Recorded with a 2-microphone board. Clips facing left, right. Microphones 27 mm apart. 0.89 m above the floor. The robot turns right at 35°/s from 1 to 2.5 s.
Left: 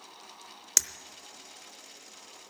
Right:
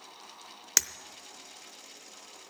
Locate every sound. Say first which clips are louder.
0.8 s breaking glass: even; 25° right (ahead or behind), 0.7 m